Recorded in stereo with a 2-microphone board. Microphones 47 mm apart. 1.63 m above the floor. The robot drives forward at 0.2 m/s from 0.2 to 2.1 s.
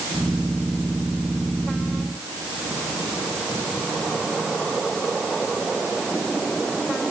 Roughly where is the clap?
I don't hear a clap.